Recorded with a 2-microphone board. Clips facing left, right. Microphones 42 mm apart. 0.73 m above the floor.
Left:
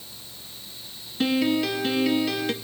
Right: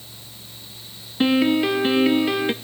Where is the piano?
30° right (ahead or behind), 0.6 m.